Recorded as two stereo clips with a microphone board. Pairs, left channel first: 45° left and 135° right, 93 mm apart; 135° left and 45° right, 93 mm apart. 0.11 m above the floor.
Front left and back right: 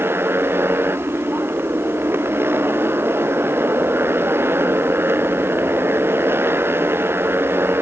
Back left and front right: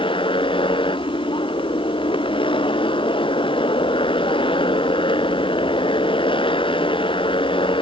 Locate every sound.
0.0 s a motorcycle: 160° left